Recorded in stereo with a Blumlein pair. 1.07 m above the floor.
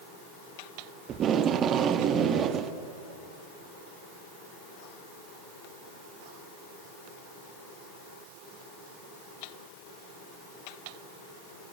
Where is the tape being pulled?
30° right, 1.2 m.